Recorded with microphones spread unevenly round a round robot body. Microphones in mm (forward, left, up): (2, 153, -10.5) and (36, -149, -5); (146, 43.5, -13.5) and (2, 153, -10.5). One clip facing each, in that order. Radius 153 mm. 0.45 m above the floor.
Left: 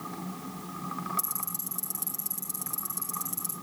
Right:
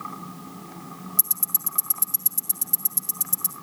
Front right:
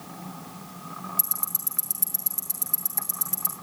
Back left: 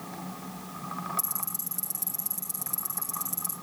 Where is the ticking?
155° right, 3.5 m.